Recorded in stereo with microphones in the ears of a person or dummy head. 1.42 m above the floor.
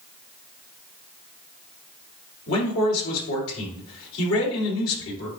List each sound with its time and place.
2.5 s a man speaking: 80° left, 3 m